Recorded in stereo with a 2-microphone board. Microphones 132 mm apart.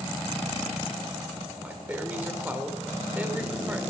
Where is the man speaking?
15° right (ahead or behind), 2 m.